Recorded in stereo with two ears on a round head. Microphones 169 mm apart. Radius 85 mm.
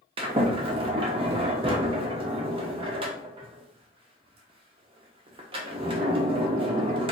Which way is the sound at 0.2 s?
30° right (ahead or behind).